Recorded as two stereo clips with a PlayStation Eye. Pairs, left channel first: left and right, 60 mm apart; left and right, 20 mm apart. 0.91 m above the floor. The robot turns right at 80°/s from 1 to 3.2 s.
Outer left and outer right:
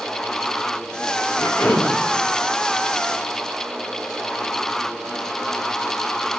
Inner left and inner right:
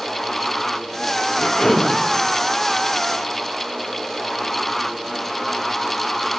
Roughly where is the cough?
Behind left.